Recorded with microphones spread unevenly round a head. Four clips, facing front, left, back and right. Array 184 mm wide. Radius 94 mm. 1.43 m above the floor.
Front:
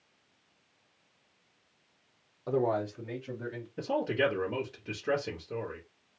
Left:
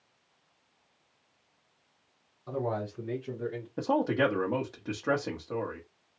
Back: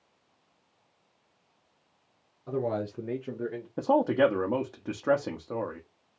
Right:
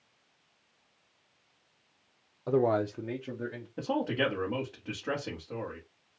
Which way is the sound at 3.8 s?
160° left.